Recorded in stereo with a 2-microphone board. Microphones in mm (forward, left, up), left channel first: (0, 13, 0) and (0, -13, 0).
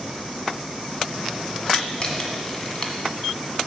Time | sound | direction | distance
1.7 | a camera shutter | 30° left (ahead or behind) | 1.3 m